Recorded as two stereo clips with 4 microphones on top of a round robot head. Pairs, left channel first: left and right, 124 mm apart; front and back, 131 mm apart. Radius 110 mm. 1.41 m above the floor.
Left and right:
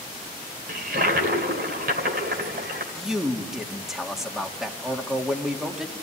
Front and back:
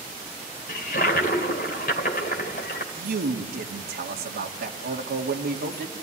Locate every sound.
0.7 s a toilet flushing: 50° right, 2 m
2.9 s a man speaking: 175° right, 2.5 m